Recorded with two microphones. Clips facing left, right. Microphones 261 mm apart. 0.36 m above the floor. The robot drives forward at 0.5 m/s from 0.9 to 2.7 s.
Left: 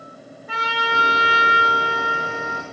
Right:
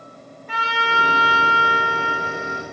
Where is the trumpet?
10° left (ahead or behind), 1.2 m.